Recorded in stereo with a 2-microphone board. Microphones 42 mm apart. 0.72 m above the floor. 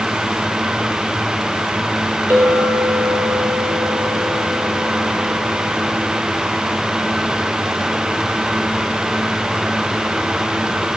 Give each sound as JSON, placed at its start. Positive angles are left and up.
{"t": 2.3, "sound": "a clink", "side_deg": -55, "distance_m": 2.5}